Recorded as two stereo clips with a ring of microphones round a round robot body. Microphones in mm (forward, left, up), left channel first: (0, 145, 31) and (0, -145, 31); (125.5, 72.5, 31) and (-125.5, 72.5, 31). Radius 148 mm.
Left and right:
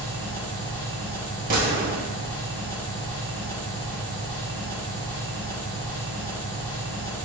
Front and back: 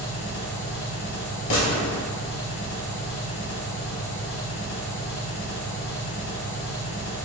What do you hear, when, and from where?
0.0 s an engine running: 40° left, 1.3 m
1.5 s a gunshot: 30° right, 1.6 m